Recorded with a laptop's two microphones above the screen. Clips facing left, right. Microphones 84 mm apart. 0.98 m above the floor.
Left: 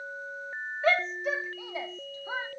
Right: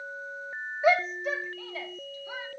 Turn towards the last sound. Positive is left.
turn(degrees=40)  # may be behind; listen again after turning